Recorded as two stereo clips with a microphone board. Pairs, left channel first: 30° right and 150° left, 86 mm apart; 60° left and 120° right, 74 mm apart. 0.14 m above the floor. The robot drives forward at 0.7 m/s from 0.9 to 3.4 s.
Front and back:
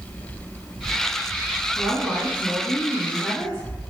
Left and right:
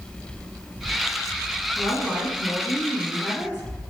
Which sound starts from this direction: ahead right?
A woman speaking, at 1.8 s.